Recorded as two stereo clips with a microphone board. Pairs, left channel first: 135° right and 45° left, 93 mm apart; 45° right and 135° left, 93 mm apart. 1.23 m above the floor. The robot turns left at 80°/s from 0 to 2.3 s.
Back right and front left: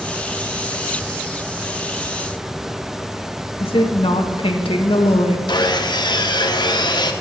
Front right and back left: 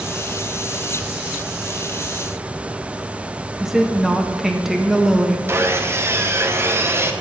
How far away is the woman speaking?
About 1.4 m.